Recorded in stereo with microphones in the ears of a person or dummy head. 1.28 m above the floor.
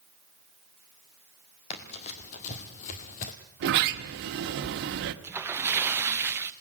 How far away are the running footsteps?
About 2.5 m.